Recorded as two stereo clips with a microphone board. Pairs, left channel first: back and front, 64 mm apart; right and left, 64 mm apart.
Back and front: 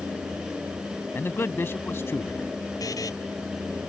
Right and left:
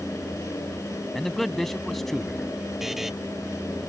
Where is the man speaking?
175° right.